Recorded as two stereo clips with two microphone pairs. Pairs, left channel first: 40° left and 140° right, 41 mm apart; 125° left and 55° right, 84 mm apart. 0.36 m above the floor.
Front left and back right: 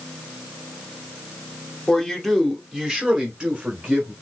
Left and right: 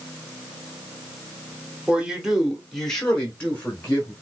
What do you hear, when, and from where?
1.9 s a man speaking: 15° right, 1.1 m; by 4.1 s 175° right, 1.5 m